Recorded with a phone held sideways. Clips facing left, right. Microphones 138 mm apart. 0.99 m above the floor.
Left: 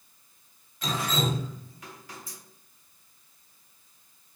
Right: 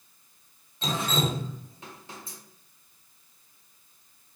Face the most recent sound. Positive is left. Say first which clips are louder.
# right 1 dB
turn(degrees=-25)  # may be behind; listen again after turning